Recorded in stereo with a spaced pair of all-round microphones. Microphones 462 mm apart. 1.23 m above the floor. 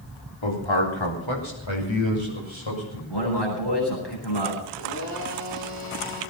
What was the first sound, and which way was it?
A man speaking, 75° left (ahead or behind).